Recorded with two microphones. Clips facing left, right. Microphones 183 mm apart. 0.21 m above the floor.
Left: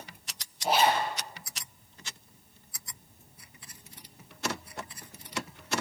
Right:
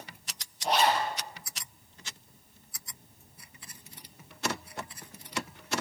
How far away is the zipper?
About 3.5 m.